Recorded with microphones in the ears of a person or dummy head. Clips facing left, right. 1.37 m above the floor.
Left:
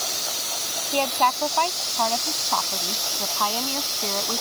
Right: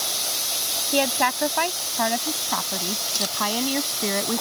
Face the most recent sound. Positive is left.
turn(degrees=-20)  # may be behind; listen again after turning